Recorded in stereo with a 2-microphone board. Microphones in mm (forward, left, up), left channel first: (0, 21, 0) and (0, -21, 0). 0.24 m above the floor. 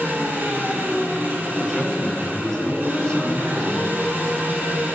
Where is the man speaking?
20° left (ahead or behind), 1.9 m.